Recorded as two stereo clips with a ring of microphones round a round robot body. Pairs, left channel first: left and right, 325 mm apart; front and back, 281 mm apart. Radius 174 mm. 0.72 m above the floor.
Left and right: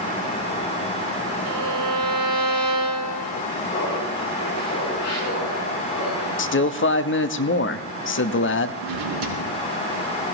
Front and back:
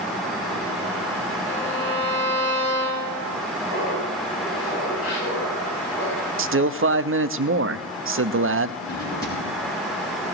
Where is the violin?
65° right, 7.5 m.